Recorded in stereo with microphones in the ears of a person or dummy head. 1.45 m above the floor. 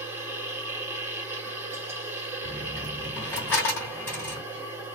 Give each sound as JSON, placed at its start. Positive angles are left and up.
{"t": 0.0, "sound": "a machine running", "side_deg": -15, "distance_m": 1.9}
{"t": 2.4, "sound": "a dropped coin", "side_deg": 10, "distance_m": 1.4}